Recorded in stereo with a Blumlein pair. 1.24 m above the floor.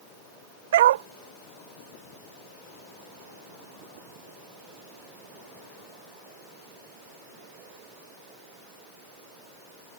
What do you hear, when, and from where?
0.7 s a dog barking: 60° right